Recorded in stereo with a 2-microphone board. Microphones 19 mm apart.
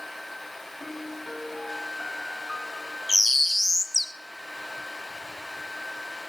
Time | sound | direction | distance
0.8 | a piano | 45° left (ahead or behind) | 1.9 m
3.1 | a bird | 15° right (ahead or behind) | 0.5 m